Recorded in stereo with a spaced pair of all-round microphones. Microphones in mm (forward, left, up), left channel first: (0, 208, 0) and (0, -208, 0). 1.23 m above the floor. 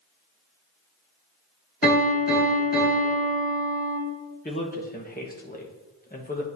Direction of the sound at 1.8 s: 25° left (ahead or behind).